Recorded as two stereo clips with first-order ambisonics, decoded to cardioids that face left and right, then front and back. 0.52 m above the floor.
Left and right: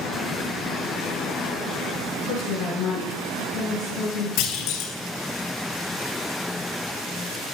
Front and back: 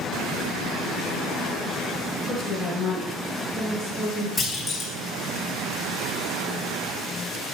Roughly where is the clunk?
Left.